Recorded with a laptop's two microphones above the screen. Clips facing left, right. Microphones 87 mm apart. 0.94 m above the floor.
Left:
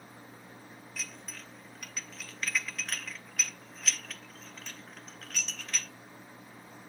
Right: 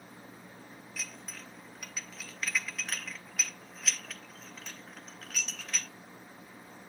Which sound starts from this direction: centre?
Dishes clattering, at 1.0 s.